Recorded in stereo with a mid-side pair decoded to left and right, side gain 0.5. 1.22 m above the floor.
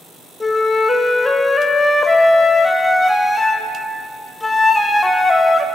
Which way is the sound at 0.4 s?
15° left.